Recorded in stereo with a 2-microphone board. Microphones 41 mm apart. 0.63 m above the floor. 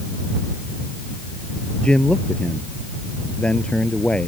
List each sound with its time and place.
1.8 s a man speaking: 25° left (ahead or behind)